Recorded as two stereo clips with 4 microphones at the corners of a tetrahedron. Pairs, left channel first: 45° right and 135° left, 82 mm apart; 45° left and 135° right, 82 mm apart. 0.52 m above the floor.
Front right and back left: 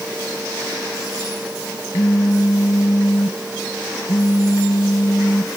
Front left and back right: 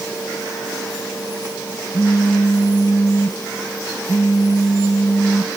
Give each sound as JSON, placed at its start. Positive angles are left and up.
{"t": 1.9, "sound": "a phone buzzing", "azimuth_deg": -5}